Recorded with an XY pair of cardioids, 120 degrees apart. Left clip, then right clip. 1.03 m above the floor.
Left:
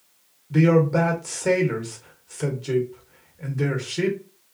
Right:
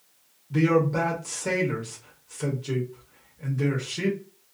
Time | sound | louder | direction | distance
0.5 | a man speaking | left 3 dB | 20° left | 1.1 m